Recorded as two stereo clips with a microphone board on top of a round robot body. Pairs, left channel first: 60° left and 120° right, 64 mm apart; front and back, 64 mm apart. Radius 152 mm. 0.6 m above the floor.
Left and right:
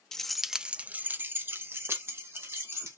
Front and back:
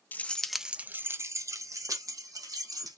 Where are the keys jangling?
10° right, 0.6 m; by 3.0 s 170° right, 1.5 m.